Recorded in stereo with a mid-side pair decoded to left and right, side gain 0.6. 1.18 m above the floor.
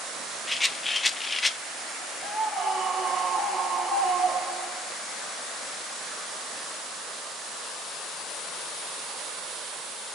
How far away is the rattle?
About 0.7 m.